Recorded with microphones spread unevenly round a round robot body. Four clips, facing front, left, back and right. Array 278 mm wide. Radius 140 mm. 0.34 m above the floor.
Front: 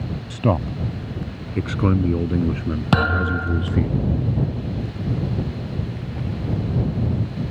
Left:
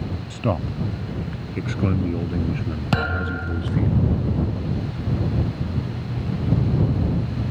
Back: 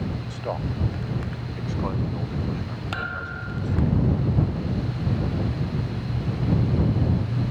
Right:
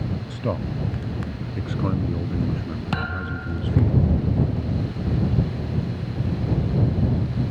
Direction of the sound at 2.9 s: 15° left.